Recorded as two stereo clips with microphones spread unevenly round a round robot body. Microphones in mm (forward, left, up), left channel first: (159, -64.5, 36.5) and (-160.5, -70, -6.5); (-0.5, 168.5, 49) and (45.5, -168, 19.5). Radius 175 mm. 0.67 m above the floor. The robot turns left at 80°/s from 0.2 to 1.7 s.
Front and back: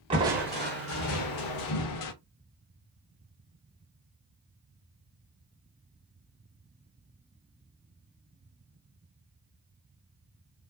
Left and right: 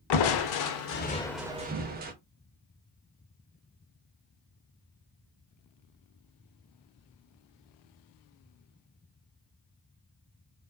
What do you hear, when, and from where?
0.1 s crushing: 105° left, 0.5 m; by 2.1 s 15° right, 0.5 m